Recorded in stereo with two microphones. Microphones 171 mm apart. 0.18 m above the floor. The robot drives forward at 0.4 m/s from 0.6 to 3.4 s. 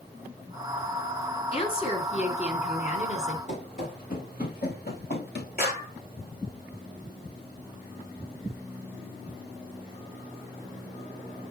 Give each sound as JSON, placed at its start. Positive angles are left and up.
{"t": 1.5, "sound": "a woman speaking", "side_deg": 35, "distance_m": 1.8}
{"t": 3.5, "sound": "running footsteps", "side_deg": 45, "distance_m": 4.0}
{"t": 5.6, "sound": "a clap", "side_deg": 65, "distance_m": 3.5}